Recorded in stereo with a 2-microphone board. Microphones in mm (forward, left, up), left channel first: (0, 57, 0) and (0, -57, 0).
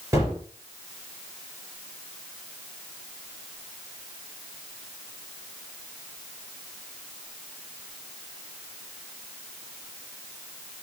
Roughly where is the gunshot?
Right.